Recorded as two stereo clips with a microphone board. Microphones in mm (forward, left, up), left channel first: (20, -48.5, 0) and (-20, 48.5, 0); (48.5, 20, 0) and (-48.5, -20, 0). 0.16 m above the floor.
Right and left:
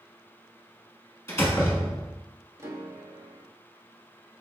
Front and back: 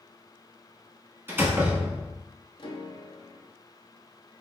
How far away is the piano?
About 0.6 m.